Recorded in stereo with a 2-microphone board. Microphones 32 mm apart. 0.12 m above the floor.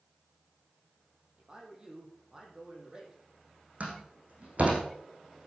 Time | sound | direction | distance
1.4 | a man speaking | 25° right (ahead or behind) | 4.5 m
3.8 | a door slam | 50° right (ahead or behind) | 4.5 m